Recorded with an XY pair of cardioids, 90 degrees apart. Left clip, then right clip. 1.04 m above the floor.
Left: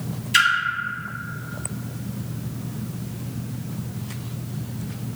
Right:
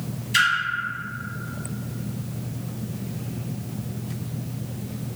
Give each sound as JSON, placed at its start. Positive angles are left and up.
{"t": 0.3, "sound": "a splash", "azimuth_deg": 35, "distance_m": 0.8}